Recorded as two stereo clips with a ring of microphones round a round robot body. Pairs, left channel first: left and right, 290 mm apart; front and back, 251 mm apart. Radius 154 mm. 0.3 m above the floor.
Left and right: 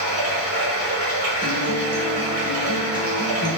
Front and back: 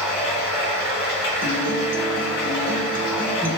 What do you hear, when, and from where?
0.0 s running water: 35° right, 1.9 m
1.4 s a guitar: 155° left, 0.7 m